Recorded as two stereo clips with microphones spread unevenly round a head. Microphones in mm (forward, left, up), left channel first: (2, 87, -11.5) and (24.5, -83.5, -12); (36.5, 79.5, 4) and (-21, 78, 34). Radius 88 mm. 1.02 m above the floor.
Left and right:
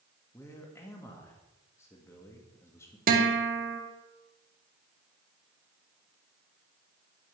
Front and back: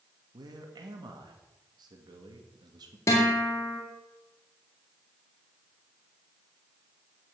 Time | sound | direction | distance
0.3 | a man speaking | 175° left | 1.9 m
3.1 | a guitar | 45° right | 1.9 m